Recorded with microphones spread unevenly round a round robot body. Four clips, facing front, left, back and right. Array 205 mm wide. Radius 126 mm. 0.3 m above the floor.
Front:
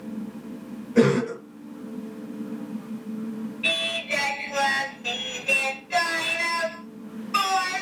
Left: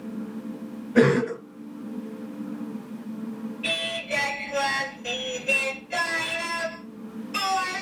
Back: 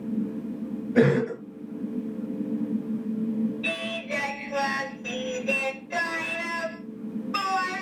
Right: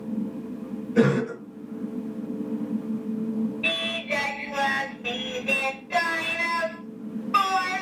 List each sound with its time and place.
0.9 s a cough: 140° left, 1.6 m
3.6 s singing: 80° right, 1.3 m